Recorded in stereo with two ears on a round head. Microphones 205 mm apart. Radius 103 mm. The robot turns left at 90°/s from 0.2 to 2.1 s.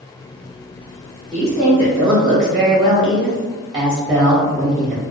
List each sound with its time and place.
1.3 s a woman speaking: 10° left (ahead or behind), 0.7 m; by 5.0 s 20° right (ahead or behind), 0.7 m